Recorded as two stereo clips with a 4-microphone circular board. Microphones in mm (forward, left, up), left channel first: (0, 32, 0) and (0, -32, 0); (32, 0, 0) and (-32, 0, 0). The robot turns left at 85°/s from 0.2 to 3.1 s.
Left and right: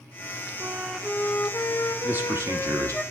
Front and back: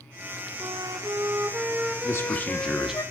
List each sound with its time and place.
0.6 s a flute: 145° right, 0.5 m; by 3.0 s 5° left, 0.5 m
2.0 s a man speaking: 25° right, 0.9 m; by 3.0 s 110° right, 0.9 m